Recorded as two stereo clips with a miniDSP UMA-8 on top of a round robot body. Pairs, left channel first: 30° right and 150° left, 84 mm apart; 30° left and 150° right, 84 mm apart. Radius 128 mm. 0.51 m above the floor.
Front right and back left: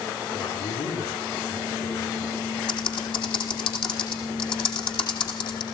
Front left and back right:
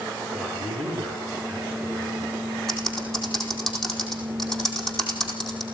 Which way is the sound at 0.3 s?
55° right.